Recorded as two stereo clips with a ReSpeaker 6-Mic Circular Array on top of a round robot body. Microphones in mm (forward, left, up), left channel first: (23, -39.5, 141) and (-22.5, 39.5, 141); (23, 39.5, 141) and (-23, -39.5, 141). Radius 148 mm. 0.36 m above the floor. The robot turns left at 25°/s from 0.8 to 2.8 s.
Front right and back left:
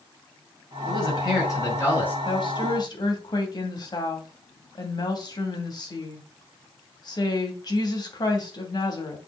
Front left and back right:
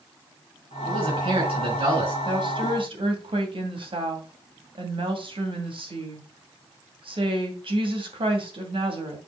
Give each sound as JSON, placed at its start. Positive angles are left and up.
{"t": 0.9, "sound": "a man speaking", "azimuth_deg": -95, "distance_m": 6.0}
{"t": 2.2, "sound": "a woman speaking", "azimuth_deg": -85, "distance_m": 2.5}